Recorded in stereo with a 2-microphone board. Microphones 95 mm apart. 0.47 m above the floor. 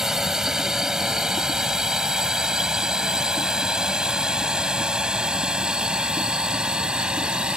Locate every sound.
0.0 s a drone: 5° right (ahead or behind); by 7.6 s 10° right (ahead or behind)